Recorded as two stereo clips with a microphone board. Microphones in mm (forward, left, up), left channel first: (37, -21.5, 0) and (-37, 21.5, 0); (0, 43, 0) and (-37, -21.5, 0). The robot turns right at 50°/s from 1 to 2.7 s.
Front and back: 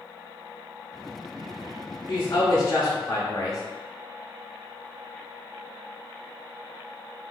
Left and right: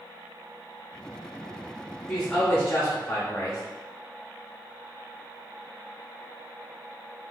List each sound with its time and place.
2.1 s a woman speaking: 20° right, 0.9 m; by 3.6 s 10° left, 0.9 m